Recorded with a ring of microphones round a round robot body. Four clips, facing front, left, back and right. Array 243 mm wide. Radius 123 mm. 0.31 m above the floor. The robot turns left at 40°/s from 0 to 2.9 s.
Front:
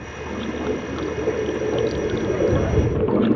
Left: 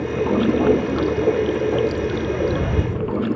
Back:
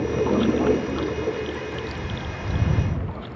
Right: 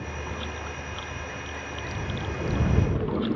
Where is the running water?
130° left; by 3.4 s 15° left.